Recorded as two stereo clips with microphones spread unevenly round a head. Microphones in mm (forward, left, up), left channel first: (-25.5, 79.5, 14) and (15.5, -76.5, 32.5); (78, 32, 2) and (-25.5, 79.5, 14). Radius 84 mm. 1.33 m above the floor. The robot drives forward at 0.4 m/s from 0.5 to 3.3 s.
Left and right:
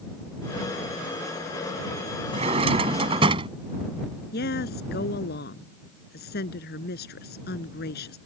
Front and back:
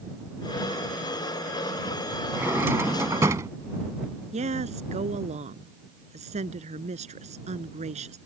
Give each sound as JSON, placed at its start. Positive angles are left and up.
{"t": 2.3, "sound": "a drawer", "azimuth_deg": -125}
{"t": 4.3, "sound": "a woman speaking", "azimuth_deg": 135}